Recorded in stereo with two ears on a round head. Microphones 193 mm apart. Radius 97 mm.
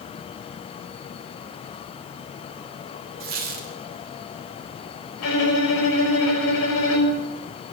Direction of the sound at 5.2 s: 85° left.